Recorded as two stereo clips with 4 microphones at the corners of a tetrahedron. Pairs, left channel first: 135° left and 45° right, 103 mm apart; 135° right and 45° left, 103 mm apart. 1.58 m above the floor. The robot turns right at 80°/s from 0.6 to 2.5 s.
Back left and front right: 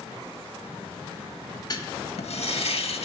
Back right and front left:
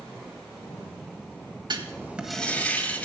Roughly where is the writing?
Left.